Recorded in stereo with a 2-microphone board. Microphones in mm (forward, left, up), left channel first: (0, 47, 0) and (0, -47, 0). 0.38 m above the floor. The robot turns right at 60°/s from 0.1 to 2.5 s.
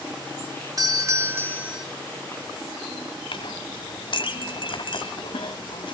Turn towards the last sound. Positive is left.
turn(degrees=60)  # may be behind; listen again after turning